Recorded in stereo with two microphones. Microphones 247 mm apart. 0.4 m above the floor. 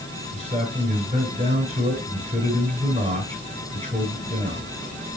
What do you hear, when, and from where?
0.3 s a man speaking: 25° right (ahead or behind), 7 m